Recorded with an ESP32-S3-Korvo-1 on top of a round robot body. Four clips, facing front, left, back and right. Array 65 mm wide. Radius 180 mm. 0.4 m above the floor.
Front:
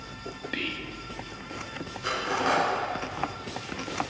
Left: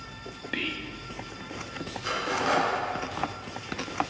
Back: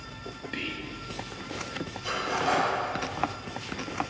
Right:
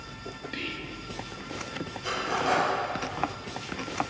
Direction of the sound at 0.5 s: 60° left.